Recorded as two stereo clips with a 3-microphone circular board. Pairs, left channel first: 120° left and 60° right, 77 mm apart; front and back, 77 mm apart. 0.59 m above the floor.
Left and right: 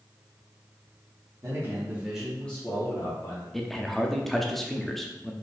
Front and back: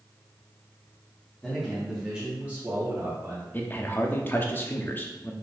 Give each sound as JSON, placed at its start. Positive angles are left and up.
{"t": 1.4, "sound": "a man speaking", "azimuth_deg": -80, "distance_m": 1.6}
{"t": 3.5, "sound": "a man speaking", "azimuth_deg": 35, "distance_m": 0.6}